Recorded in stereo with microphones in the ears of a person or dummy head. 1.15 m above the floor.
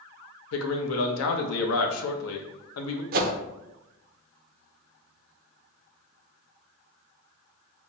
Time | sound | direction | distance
0.5 | a man speaking | 85° left | 0.7 m
3.1 | a whoosh | 40° right (ahead or behind) | 0.5 m